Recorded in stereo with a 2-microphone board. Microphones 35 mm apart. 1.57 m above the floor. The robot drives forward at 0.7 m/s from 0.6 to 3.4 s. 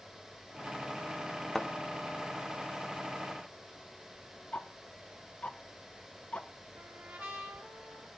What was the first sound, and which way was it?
A thud, 5° left (ahead or behind).